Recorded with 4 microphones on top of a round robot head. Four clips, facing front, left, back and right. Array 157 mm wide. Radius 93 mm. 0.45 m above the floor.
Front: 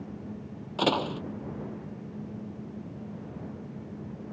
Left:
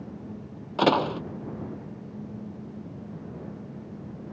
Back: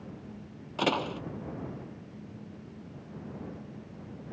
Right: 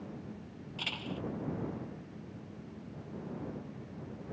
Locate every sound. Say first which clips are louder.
0.8 s a door slam: left 20 dB, front 2 dB; 80° left